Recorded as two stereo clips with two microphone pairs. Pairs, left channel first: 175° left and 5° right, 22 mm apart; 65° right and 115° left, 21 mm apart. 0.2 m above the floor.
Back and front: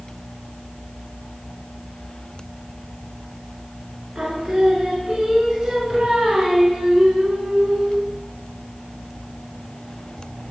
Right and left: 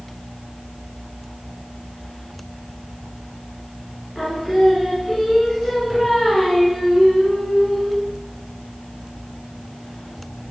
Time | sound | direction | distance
4.2 | singing | 10° left | 1.0 m